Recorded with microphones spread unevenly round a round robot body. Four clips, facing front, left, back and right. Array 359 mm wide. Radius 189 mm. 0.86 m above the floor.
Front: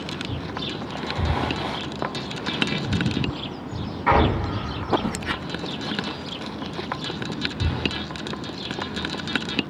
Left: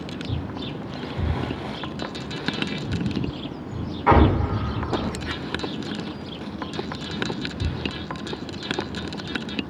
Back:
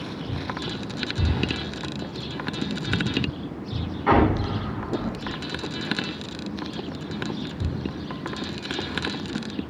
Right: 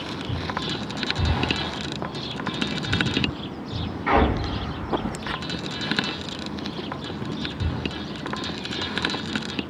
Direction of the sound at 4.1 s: 70° left.